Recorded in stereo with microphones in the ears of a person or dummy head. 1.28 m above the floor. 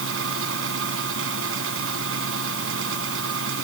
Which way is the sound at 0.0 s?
85° right.